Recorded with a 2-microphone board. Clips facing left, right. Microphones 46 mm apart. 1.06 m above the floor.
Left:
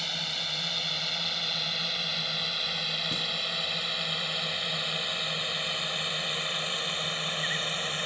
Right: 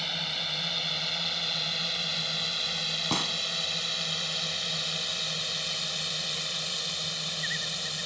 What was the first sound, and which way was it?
A drone, 5° right (ahead or behind).